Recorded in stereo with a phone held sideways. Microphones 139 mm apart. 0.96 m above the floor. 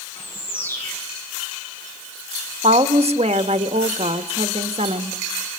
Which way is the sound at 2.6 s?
50° right (ahead or behind).